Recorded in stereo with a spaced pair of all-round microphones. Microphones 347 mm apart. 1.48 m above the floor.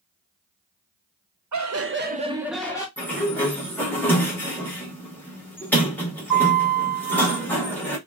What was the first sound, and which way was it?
Laughter, 55° right (ahead or behind).